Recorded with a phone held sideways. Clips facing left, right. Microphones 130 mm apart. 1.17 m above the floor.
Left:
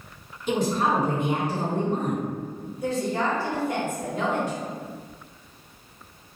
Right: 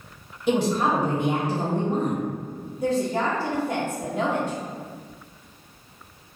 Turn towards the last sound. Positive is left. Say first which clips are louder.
# right 2 dB
turn(degrees=-45)  # may be behind; listen again after turning